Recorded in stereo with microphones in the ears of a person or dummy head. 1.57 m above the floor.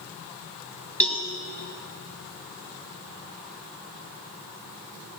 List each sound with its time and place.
1.0 s a cowbell: 10° left (ahead or behind), 1.2 m